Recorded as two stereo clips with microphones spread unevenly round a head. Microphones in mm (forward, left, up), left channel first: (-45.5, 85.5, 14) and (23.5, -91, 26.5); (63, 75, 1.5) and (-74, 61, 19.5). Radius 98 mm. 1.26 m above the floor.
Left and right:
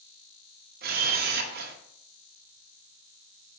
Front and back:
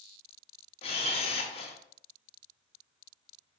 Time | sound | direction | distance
0.8 | a camera shutter | 50° right | 0.7 m